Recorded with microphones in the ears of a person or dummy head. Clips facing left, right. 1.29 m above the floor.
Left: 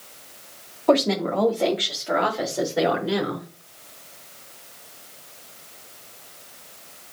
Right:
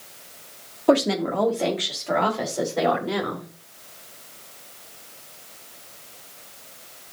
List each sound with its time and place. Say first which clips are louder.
0.9 s a woman speaking: even; 15° right (ahead or behind), 2 m; by 3.5 s 5° left (ahead or behind), 4.5 m